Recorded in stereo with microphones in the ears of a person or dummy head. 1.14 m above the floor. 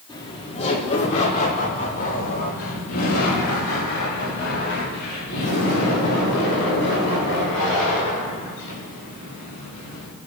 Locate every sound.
0.1 s laughter: 20° left (ahead or behind), 2.5 m; by 10.1 s 65° left (ahead or behind), 12.5 m